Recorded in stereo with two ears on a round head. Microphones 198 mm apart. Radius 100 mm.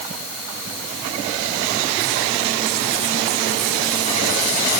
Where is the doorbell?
No doorbell in this recording.